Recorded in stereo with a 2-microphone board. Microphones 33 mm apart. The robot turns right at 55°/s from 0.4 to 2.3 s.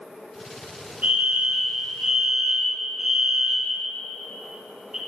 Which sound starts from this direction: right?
A fire alarm, at 1.0 s.